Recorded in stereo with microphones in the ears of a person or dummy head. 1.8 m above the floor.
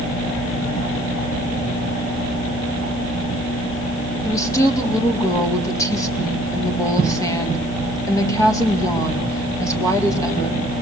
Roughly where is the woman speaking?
Centre.